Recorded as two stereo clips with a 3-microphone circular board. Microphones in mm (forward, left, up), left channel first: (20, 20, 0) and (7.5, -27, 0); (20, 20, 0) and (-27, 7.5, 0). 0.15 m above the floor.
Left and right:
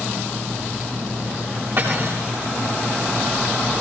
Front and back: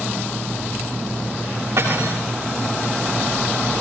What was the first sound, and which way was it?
Cutlery clinking, 140° right.